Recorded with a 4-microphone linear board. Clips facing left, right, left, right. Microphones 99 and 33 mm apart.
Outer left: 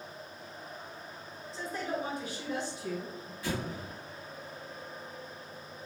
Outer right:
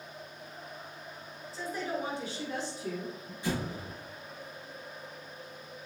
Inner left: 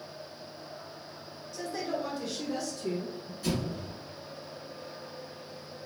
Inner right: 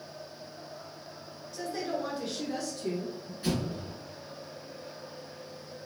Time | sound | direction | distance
1.5 | a woman speaking | 5° right (ahead or behind) | 1.3 m
3.4 | an explosion | 25° right (ahead or behind) | 1.8 m